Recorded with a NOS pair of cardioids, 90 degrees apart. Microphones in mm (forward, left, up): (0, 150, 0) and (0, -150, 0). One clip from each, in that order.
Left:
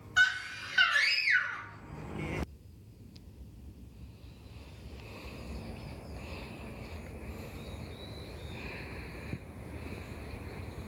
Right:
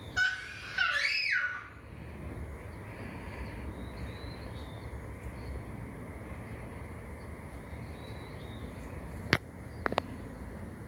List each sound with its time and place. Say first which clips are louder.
0.2 s a scream: left 4 dB; 40° left, 1.4 m